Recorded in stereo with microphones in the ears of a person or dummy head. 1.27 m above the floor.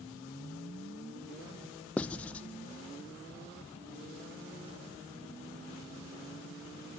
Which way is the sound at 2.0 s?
5° left (ahead or behind).